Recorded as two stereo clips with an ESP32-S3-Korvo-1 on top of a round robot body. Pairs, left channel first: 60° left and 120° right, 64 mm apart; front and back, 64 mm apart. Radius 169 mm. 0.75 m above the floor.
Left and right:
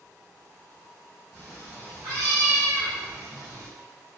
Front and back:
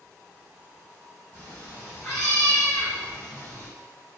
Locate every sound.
1.3 s a cat meowing: 155° left, 0.6 m; by 3.7 s 60° right, 1.1 m